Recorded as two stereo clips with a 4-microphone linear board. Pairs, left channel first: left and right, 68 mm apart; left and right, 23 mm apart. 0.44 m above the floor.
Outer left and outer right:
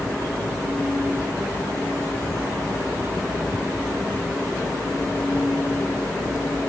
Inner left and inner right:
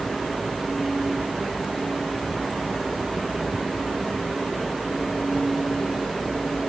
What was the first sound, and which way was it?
Only background noise.